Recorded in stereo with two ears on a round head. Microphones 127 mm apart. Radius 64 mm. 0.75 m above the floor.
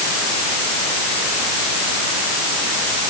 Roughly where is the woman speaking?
I don't hear a woman speaking.